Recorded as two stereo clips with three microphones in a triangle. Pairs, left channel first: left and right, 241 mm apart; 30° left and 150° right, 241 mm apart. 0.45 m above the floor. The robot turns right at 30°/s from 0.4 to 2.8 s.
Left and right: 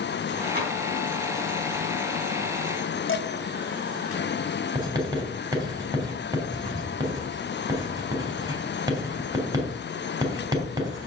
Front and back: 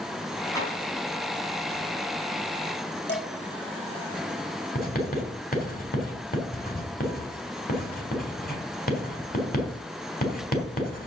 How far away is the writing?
About 3.5 m.